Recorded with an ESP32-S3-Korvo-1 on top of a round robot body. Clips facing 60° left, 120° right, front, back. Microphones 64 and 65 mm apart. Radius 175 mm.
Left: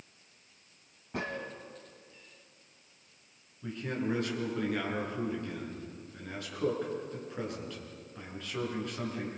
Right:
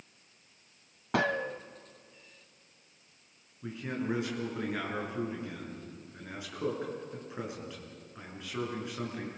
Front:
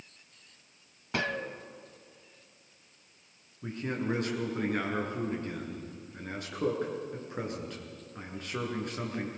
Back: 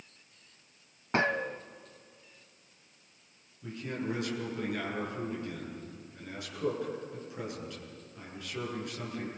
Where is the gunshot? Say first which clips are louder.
Right 8 dB, back 4 dB; 120° right, 0.6 m.